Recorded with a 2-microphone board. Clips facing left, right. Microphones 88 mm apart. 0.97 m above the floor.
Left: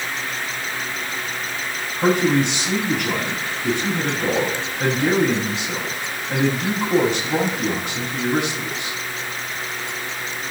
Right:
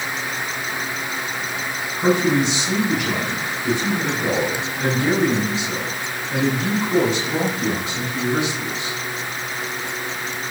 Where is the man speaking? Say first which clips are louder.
Even; 55° left (ahead or behind), 6.5 m.